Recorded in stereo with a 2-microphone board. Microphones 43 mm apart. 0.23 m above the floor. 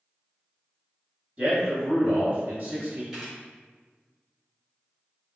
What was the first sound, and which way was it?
A man speaking, 20° right (ahead or behind).